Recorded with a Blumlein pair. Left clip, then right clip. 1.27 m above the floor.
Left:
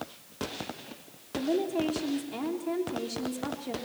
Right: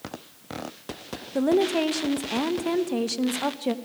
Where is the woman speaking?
45° right, 1.4 m.